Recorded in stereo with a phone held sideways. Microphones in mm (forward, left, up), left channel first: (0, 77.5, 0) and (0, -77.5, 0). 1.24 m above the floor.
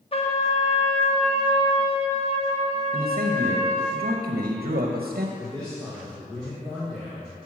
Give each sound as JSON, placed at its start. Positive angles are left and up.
{"t": 0.1, "sound": "a trumpet", "side_deg": 40, "distance_m": 0.9}
{"t": 2.9, "sound": "a man speaking", "side_deg": -80, "distance_m": 0.8}
{"t": 5.4, "sound": "a man speaking", "side_deg": 5, "distance_m": 1.6}